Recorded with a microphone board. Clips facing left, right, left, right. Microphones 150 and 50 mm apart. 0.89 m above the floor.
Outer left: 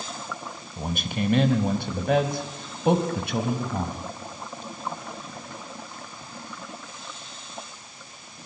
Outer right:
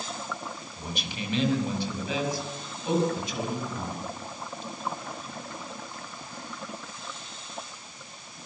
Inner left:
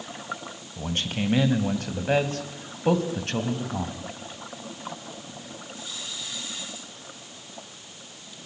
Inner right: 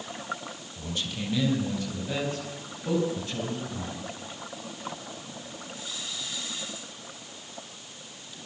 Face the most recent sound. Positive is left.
turn(degrees=65)  # may be behind; listen again after turning